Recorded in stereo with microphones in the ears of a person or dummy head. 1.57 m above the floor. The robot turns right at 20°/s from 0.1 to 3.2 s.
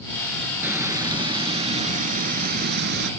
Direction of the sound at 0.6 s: 165° right.